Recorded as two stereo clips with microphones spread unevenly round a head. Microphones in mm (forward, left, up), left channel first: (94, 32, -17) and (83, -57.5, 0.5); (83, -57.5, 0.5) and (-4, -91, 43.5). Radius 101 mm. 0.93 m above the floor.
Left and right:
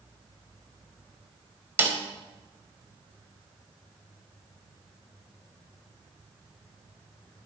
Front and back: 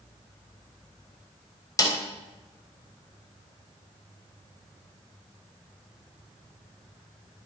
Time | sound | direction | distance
1.8 | a snare drum | 30° right | 3.5 m